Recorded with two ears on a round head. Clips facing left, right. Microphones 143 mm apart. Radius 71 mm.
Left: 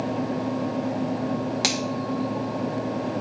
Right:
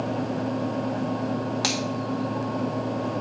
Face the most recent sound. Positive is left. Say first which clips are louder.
# left 1 dB
turn(degrees=20)  # may be behind; listen again after turning